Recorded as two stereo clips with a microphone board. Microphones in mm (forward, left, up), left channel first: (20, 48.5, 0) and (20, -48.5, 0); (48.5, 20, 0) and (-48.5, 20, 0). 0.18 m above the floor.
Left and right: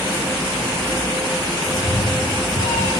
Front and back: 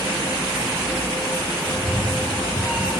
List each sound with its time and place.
1.7 s a cat meowing: 90° left, 2.5 m; by 2.9 s 105° left, 2.5 m